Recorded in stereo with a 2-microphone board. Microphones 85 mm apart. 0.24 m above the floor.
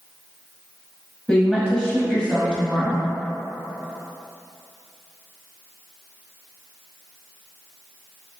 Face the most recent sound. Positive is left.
turn(degrees=10)  # may be behind; listen again after turning